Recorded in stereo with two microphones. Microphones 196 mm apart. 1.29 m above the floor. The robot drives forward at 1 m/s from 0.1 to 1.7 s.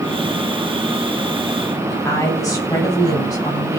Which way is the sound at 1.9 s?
20° left (ahead or behind).